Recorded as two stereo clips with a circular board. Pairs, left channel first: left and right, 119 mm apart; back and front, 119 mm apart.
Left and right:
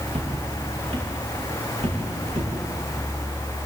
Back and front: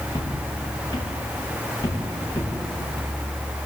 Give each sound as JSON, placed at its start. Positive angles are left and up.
{"t": 0.1, "sound": "footsteps", "azimuth_deg": -125, "distance_m": 8.5}